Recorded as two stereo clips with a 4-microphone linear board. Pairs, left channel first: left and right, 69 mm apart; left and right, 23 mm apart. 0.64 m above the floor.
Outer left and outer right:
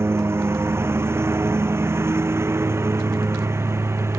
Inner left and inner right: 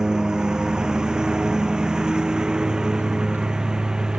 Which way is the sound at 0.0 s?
35° right (ahead or behind).